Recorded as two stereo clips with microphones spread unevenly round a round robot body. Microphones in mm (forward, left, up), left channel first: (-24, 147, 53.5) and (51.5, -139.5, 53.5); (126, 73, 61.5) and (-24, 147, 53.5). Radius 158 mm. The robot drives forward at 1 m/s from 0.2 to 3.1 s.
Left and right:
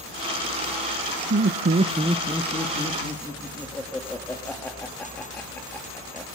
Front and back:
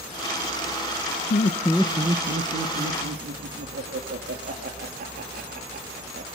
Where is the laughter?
30° right, 0.6 m; by 6.4 s 170° right, 1.5 m.